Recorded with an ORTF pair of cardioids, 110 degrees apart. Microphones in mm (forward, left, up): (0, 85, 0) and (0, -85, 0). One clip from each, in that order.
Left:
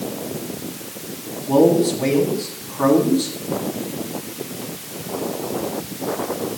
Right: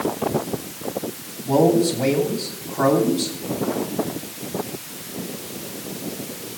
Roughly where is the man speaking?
Ahead right.